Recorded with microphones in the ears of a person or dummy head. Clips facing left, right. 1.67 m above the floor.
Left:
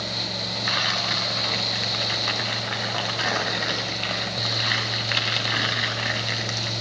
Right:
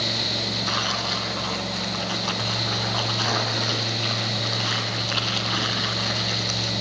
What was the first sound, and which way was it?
Tearing paper, 25° left (ahead or behind).